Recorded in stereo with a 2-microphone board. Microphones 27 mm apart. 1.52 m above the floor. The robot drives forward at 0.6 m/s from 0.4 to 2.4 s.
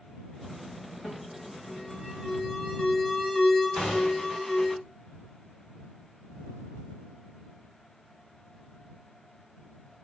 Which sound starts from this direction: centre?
An alarm, at 1.0 s.